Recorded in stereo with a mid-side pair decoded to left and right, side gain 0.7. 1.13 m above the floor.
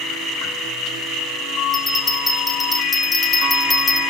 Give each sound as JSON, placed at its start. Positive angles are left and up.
{"t": 1.7, "sound": "a bell", "azimuth_deg": 10, "distance_m": 2.0}